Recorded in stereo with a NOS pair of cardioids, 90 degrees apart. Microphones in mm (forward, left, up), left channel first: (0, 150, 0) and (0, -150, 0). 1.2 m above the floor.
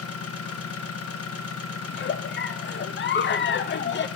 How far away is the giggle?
About 0.7 m.